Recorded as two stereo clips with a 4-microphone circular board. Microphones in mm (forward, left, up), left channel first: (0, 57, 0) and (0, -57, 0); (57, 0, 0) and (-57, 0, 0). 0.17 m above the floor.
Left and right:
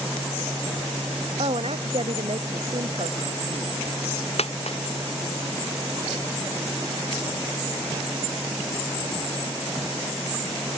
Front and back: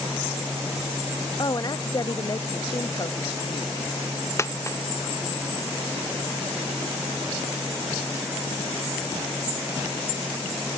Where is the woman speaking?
55° right; by 3.7 s 60° right.